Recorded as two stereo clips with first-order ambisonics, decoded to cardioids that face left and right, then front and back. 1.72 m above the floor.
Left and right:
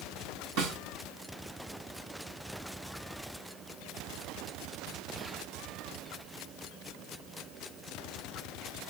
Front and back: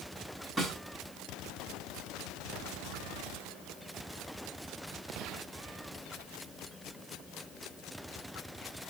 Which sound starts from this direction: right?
A snare drum, at 0.6 s.